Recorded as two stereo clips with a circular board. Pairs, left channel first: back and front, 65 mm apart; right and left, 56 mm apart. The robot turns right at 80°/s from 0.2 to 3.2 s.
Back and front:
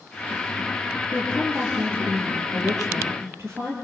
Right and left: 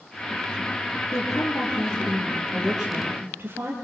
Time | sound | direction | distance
1.1 | a woman speaking | 120° right | 7.5 m